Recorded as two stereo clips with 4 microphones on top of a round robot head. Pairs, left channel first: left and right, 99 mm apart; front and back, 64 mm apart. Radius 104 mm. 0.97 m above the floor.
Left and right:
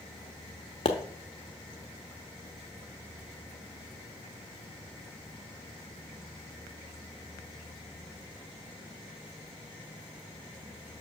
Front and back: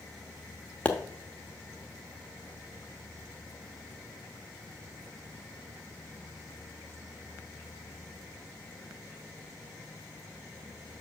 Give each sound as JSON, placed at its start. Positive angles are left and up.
{"t": 0.8, "sound": "a pop", "azimuth_deg": 65, "distance_m": 0.7}